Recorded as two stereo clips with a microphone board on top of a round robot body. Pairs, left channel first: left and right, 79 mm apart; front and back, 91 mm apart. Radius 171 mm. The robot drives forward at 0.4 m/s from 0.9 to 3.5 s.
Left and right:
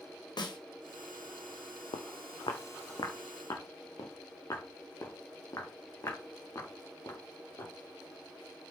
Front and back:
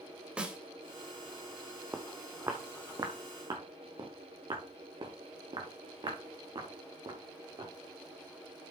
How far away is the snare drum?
About 2.5 m.